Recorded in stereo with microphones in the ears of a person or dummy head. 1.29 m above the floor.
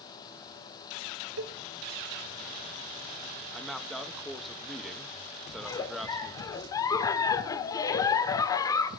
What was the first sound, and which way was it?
A cowbell, 75° right (ahead or behind).